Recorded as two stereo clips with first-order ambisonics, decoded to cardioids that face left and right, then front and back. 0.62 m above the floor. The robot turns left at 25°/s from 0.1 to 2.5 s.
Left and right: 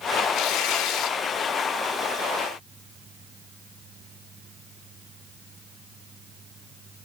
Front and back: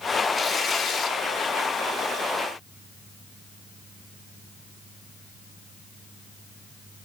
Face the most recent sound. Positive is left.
turn(degrees=15)